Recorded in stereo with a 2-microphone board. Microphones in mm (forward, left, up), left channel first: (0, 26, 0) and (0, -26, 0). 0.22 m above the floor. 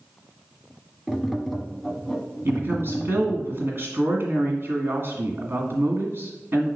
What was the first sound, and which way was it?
Tapping, 5° left (ahead or behind).